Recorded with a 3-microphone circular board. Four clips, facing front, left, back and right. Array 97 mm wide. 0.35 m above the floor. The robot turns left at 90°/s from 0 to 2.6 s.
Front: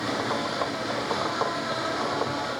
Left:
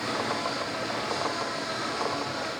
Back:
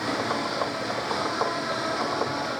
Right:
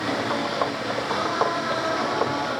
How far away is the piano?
No piano in this recording.